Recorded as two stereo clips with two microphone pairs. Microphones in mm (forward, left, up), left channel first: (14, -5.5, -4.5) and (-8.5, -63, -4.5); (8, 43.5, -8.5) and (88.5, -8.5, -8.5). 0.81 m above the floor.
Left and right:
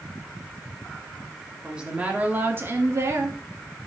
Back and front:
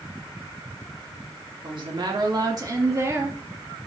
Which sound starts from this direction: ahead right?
A woman speaking, at 1.6 s.